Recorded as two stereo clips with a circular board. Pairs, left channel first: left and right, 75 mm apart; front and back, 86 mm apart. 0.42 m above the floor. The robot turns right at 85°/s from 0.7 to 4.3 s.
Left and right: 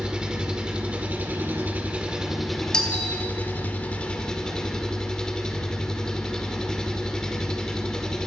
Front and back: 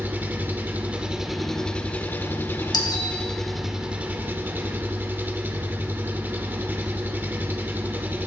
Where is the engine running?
150° right, 1.2 m; by 8.3 s 155° left, 1.2 m.